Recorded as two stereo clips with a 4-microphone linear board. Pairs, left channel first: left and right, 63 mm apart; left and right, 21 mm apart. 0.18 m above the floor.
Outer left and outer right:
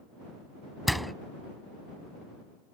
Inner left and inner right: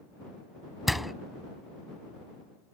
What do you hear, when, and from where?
0.9 s a door slam: centre (ahead or behind)